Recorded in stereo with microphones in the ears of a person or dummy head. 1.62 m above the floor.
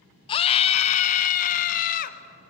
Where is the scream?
25° left (ahead or behind), 0.9 m; by 2.2 s 45° left (ahead or behind), 1.9 m.